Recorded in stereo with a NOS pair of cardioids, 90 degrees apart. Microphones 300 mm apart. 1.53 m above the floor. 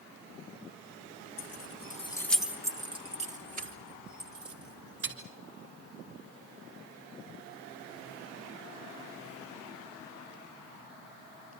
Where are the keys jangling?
60° left, 1.4 m; by 5.2 s 35° right, 5.5 m.